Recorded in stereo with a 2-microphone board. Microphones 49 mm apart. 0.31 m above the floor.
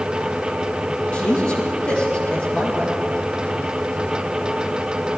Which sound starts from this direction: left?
A man speaking, at 1.1 s.